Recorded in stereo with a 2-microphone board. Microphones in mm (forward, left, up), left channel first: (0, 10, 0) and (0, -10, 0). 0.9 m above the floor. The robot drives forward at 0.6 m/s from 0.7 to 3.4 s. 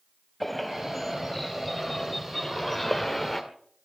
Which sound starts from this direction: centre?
A bird, at 0.4 s.